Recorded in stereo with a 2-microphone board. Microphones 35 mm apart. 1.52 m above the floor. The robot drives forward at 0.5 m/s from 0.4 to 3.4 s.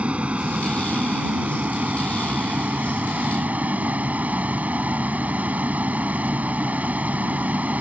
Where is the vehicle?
35° right (ahead or behind); by 7.8 s 45° right (ahead or behind).